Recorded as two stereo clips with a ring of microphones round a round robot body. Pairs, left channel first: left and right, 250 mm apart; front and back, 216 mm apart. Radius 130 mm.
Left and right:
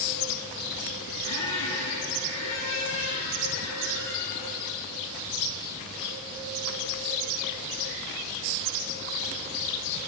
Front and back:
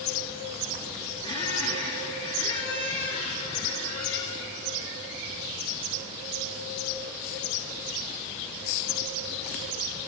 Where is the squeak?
65° left, 8 m.